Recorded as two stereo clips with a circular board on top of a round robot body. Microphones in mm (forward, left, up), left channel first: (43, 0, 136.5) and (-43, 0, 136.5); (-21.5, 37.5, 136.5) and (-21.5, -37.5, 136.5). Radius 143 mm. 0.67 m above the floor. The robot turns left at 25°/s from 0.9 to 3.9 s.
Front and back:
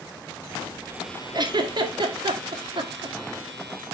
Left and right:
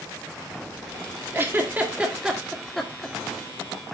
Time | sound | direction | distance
1.3 | a giggle | 150° right | 2 m